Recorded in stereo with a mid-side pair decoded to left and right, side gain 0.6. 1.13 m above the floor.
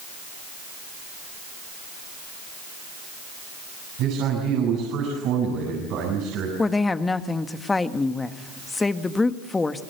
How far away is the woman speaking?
About 1.5 m.